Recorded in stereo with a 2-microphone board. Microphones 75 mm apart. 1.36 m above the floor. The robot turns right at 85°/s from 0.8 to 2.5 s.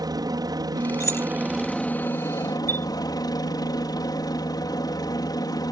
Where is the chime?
30° left (ahead or behind).